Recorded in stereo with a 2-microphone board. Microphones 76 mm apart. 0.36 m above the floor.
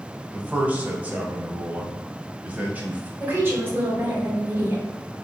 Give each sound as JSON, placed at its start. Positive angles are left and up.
{"t": 0.3, "sound": "a man speaking", "side_deg": -20, "distance_m": 0.9}
{"t": 3.2, "sound": "a woman speaking", "side_deg": -25, "distance_m": 2.0}